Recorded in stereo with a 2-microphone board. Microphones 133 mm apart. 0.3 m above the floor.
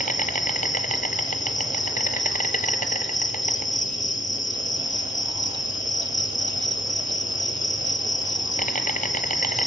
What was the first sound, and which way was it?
An insect, 75° left (ahead or behind).